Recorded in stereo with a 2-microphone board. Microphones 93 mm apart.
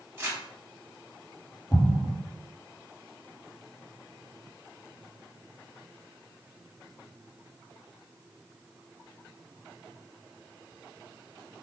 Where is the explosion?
45° left (ahead or behind), 0.7 m.